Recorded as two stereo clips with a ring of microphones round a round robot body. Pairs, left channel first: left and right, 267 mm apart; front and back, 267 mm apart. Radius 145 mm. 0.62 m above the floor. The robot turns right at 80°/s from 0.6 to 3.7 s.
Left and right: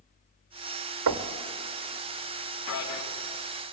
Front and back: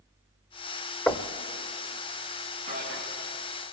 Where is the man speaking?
110° left, 3.5 m; by 3.0 s 140° left, 3.5 m.